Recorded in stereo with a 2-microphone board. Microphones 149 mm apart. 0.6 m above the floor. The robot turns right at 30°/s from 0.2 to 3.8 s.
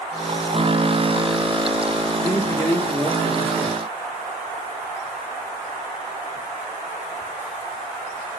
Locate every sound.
2.2 s a man speaking: 140° left, 1.7 m; by 3.8 s 175° right, 1.7 m